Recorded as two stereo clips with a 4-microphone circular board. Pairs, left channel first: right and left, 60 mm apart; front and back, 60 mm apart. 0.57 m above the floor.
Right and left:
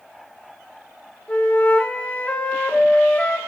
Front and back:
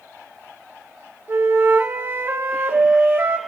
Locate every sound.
1.3 s a flute: 145° right, 0.6 m